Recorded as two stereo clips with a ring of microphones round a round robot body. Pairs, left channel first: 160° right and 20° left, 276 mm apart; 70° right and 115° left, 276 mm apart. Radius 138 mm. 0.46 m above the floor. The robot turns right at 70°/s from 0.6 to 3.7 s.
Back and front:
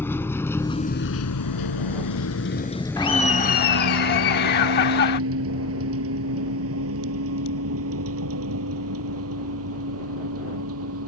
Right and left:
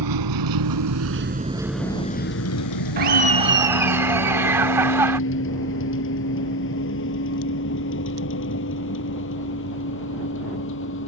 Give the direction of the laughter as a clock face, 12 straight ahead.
7 o'clock.